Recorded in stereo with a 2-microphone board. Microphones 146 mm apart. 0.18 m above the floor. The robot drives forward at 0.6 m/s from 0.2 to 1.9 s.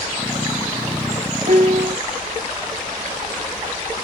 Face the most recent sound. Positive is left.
turn(degrees=-55)  # may be behind; listen again after turning